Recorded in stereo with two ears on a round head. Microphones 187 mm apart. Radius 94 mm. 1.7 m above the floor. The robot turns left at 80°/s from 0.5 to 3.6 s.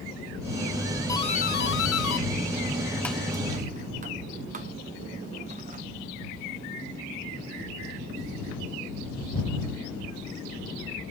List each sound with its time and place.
1.1 s a doorbell: 15° left (ahead or behind); by 5.8 s 35° right (ahead or behind)